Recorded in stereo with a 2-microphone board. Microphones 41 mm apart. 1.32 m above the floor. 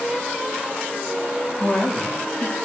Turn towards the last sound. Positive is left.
turn(degrees=35)  # may be behind; listen again after turning